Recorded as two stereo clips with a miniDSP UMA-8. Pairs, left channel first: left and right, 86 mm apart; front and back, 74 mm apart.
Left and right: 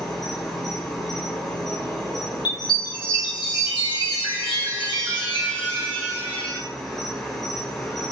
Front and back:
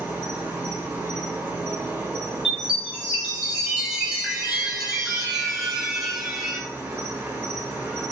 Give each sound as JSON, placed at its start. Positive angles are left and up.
{"t": 0.0, "sound": "an insect", "azimuth_deg": 170, "distance_m": 0.9}
{"t": 2.5, "sound": "a chime", "azimuth_deg": 95, "distance_m": 0.8}